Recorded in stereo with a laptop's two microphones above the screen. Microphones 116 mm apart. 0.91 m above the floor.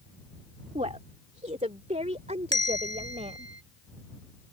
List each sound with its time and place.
0.8 s a woman speaking: 80° right; by 3.5 s 70° right (ahead or behind)
2.5 s a bell: 40° left (ahead or behind)